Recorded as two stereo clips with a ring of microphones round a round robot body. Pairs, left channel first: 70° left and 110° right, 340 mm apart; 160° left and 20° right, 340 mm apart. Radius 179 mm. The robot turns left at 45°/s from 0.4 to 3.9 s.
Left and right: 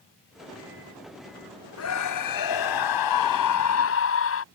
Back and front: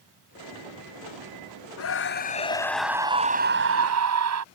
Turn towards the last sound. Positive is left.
turn(degrees=20)